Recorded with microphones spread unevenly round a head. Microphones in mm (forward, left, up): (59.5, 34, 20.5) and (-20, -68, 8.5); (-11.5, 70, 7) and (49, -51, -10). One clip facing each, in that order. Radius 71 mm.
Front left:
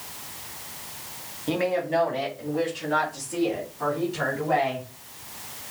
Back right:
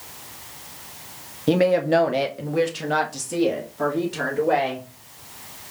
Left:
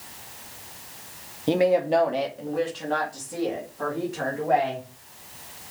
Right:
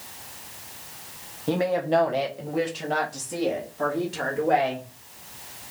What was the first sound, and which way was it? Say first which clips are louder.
A woman speaking: back right 7 dB, left 3 dB; 175° right.